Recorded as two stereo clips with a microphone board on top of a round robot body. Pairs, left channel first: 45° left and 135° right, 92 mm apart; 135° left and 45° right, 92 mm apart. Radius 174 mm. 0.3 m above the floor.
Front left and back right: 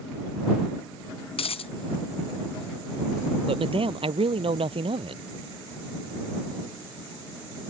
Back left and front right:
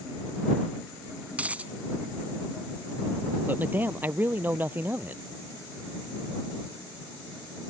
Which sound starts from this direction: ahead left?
A dropped coin, at 1.3 s.